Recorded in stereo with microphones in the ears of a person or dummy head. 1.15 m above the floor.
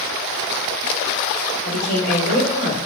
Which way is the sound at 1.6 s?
55° left (ahead or behind).